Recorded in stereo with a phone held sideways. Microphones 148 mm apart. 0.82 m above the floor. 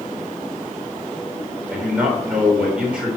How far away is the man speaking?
About 3.5 m.